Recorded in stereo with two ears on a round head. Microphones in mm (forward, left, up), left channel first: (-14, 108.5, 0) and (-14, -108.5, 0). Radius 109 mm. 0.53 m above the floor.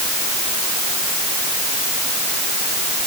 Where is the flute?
No flute in this recording.